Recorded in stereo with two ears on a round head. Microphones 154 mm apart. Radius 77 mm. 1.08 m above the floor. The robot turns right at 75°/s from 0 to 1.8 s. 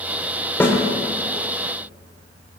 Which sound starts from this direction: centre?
A snare drum, at 0.6 s.